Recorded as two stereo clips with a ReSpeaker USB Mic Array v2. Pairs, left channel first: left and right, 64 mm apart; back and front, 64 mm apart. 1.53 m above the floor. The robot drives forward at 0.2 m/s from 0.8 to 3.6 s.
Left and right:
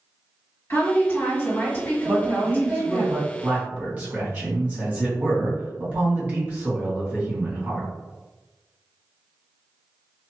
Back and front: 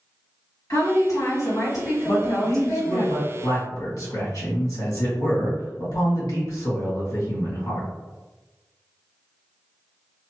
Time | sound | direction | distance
0.7 | a woman speaking | 140° left | 1.5 m
2.0 | a man speaking | 155° right | 1.5 m